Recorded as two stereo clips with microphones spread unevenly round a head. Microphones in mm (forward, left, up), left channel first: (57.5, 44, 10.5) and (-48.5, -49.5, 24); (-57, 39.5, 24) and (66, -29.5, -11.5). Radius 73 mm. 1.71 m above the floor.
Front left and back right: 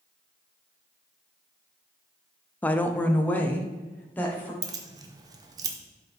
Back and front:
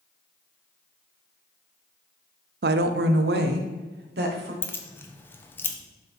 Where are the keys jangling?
170° right, 0.7 m.